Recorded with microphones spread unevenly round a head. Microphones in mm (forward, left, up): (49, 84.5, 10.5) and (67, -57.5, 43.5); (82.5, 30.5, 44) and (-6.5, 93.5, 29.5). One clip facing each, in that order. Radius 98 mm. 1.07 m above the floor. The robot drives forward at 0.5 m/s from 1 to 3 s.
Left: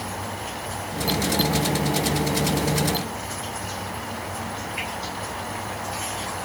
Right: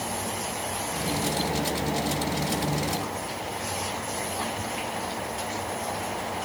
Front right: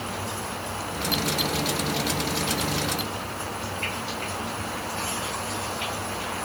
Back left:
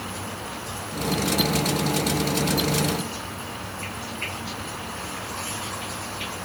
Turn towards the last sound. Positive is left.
No sound to turn to.